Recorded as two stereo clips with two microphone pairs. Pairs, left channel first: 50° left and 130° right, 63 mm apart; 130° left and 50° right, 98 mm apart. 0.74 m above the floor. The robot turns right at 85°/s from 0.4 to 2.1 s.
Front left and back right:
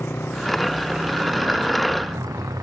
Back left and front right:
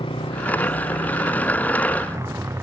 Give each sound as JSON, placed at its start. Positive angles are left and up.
{"t": 0.0, "sound": "a motorcycle", "azimuth_deg": 105}